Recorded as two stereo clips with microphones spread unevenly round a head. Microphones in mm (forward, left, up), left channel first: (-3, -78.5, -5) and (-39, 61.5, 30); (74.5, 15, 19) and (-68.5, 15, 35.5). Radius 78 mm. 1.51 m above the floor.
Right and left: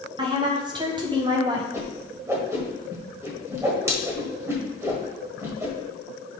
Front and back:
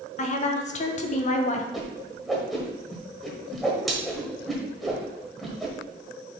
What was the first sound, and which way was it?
A woman speaking, 40° left.